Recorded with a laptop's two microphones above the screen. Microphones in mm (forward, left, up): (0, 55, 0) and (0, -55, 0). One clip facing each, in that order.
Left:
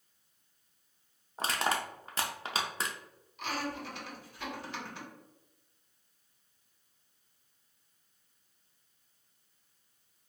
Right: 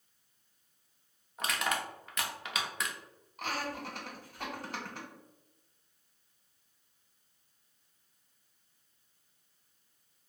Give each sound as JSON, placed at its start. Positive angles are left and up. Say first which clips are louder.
{"t": 1.4, "sound": "crushing", "louder": "left 2 dB", "side_deg": 35, "distance_m": 0.5}
{"t": 3.4, "sound": "laughter", "louder": "left 1 dB", "side_deg": -45, "distance_m": 1.4}